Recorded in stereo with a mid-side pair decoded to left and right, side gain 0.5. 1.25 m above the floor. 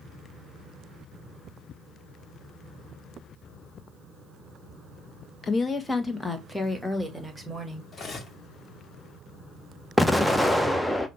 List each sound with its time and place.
5.4 s a woman speaking: 35° left, 1.2 m; by 7.8 s 15° right, 2.5 m
7.9 s cutlery clinking: 35° left, 1.6 m
10.0 s an explosion: 5° left, 0.8 m